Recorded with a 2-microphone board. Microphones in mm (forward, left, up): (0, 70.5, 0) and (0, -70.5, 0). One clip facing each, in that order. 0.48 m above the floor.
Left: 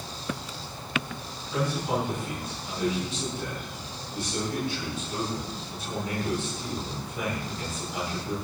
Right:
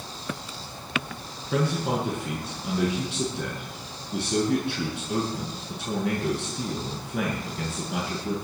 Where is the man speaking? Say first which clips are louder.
Right 2 dB; 80° right, 6.5 m.